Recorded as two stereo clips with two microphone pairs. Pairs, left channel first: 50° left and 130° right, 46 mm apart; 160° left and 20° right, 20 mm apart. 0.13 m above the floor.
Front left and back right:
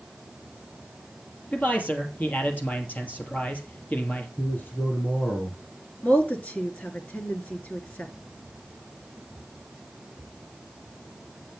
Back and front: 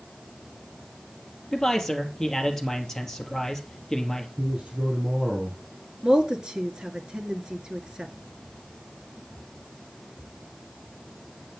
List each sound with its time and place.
1.5 s a man speaking: 100° left, 2.5 m
4.4 s a man speaking: 5° left, 3.5 m
6.0 s a woman speaking: 15° left, 1.6 m